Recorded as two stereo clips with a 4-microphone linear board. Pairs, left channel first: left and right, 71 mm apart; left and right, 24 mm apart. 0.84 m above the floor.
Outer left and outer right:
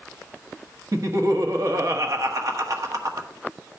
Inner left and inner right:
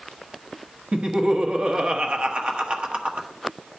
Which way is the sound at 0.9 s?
50° right (ahead or behind).